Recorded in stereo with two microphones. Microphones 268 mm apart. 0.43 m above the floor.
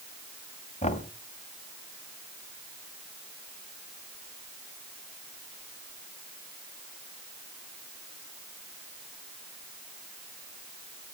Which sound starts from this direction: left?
Knocking, at 0.8 s.